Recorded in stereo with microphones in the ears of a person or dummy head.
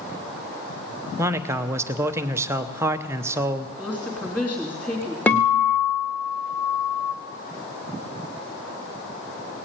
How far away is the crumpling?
I don't hear crumpling.